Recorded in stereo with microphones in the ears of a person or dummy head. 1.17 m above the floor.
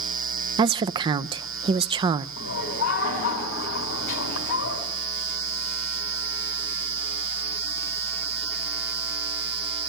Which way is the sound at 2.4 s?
80° left.